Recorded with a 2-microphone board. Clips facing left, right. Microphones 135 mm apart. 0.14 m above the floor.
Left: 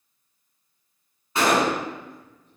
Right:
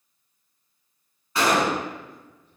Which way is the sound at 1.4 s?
25° left (ahead or behind).